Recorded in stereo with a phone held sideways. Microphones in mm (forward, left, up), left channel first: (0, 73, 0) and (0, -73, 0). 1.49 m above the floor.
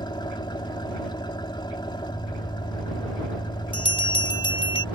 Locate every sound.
0.0 s an engine running: 30° left (ahead or behind)
3.7 s a bell: 35° left (ahead or behind)